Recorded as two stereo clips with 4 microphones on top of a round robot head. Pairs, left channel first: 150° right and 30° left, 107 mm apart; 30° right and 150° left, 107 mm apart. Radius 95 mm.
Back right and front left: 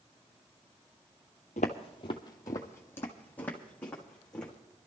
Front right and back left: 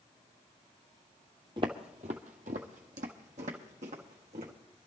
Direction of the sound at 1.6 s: 165° right.